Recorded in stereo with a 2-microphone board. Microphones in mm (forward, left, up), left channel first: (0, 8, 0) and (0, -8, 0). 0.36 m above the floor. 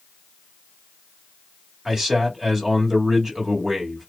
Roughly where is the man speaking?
Right.